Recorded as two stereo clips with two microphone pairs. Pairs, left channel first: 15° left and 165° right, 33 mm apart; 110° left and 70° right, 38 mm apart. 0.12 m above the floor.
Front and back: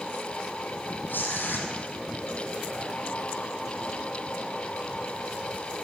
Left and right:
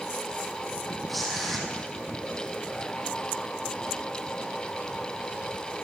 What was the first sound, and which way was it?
Tearing paper, 25° left.